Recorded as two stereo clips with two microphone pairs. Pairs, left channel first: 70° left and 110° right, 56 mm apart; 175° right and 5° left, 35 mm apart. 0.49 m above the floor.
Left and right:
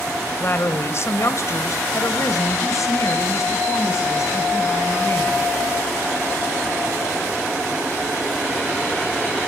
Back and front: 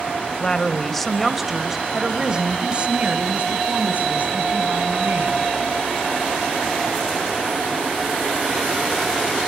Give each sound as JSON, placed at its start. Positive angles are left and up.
{"t": 0.4, "sound": "a woman speaking", "azimuth_deg": 120, "distance_m": 2.0}